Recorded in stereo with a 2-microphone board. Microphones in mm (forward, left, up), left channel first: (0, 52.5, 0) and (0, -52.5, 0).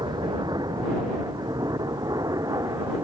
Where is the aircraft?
40° right (ahead or behind); by 3.0 s 30° right (ahead or behind).